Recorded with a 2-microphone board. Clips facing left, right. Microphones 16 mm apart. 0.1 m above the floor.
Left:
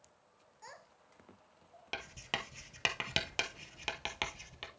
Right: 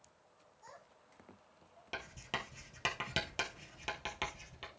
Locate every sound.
0.6 s a child speaking: 45° left (ahead or behind), 1.1 m; by 1.8 s 20° left (ahead or behind), 1.7 m
1.9 s writing: 25° left (ahead or behind), 1.0 m